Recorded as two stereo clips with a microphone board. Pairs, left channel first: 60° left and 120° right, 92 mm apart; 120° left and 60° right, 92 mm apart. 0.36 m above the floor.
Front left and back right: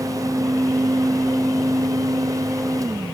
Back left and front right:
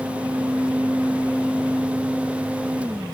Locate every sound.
Only background noise.